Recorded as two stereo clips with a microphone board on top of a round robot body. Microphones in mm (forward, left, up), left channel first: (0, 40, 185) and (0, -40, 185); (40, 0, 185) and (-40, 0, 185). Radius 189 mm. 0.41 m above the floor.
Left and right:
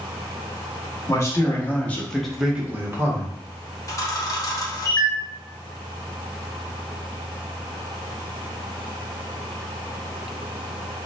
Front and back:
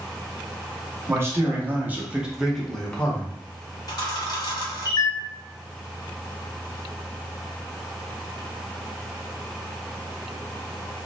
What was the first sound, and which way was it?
A man speaking, 130° left.